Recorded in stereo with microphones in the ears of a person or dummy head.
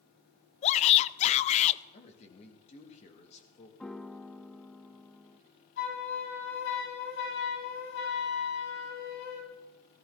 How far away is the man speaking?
About 2.5 m.